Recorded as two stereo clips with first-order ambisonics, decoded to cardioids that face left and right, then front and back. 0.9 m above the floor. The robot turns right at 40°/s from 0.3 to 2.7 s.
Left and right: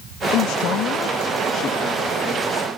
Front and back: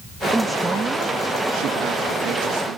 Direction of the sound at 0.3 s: 90° left.